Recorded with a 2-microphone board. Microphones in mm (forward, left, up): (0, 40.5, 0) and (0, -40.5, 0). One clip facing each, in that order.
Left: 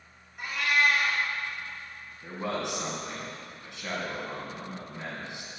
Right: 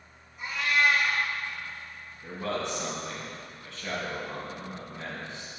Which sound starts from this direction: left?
A cat meowing, at 0.4 s.